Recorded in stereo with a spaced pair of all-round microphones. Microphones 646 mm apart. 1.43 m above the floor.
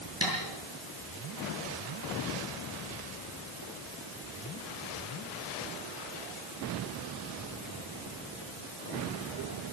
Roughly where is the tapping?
Right.